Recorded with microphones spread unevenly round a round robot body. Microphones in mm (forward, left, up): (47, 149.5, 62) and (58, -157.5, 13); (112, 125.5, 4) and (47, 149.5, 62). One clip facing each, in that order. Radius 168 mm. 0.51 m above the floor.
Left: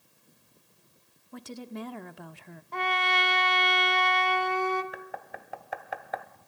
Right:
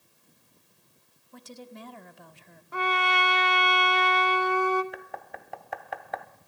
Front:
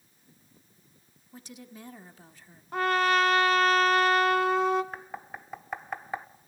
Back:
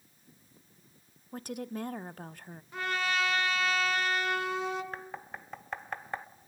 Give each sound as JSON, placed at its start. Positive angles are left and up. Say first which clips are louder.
{"t": 1.3, "sound": "a woman speaking", "louder": "left 6 dB, back 9 dB", "azimuth_deg": 105, "distance_m": 1.0}
{"t": 2.7, "sound": "a trumpet", "louder": "right 2 dB, front 8 dB", "azimuth_deg": -5, "distance_m": 1.8}
{"t": 4.9, "sound": "knocking", "louder": "even, front 1 dB", "azimuth_deg": -5, "distance_m": 1.0}